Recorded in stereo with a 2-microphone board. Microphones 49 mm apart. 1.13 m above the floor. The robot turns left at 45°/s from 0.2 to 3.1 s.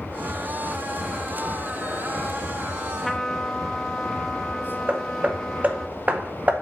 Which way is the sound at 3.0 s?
Centre (ahead or behind).